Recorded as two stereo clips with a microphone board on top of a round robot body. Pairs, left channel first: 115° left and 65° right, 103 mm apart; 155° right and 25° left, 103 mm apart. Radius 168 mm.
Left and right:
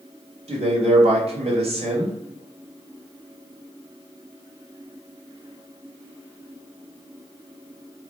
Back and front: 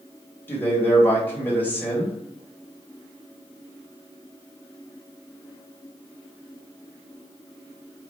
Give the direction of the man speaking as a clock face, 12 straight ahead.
3 o'clock.